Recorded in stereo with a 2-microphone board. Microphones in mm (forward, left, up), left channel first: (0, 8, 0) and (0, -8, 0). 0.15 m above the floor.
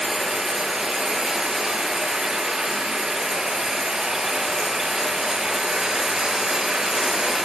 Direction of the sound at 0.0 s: 60° right (ahead or behind).